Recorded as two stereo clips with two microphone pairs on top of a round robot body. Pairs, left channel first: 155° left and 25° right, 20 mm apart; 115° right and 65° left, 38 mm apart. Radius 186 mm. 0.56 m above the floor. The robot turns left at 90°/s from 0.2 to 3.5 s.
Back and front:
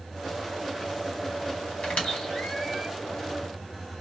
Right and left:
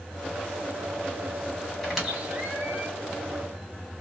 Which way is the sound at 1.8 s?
160° left.